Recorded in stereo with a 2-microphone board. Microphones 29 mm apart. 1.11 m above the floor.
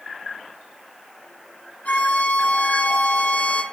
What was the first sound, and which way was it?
A violin, 65° left (ahead or behind).